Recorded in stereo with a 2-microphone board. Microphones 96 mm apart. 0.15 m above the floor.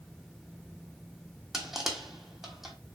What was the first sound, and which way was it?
Crushing, 5° right (ahead or behind).